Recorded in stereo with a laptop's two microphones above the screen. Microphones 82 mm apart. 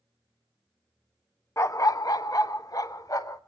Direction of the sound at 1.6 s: 35° left (ahead or behind).